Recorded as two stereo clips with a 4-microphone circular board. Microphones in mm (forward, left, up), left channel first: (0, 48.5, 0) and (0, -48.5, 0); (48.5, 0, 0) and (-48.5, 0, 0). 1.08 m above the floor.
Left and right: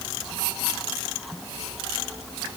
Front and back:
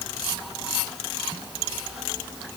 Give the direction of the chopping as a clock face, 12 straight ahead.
No chopping in this recording.